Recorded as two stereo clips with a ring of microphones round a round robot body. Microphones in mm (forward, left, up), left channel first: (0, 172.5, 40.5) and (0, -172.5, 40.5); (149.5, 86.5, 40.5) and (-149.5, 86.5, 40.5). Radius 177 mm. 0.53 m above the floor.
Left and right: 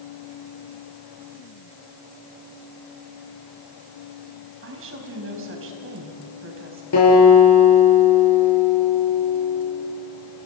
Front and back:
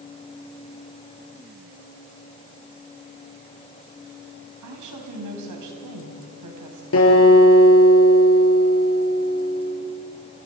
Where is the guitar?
45° left, 7 m.